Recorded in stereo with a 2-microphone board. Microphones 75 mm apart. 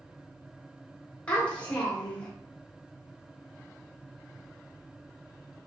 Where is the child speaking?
20° left (ahead or behind), 1.5 m.